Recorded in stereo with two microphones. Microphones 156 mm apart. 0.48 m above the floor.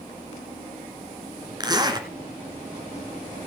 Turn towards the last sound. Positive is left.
turn(degrees=-25)  # may be behind; listen again after turning